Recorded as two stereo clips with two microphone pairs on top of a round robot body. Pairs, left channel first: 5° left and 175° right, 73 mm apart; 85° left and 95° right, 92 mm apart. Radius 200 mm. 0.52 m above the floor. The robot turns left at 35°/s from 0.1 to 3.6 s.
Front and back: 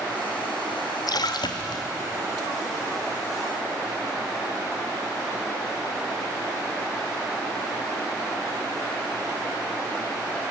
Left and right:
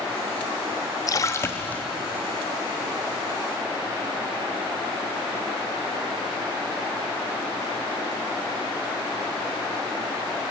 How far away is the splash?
About 1.0 m.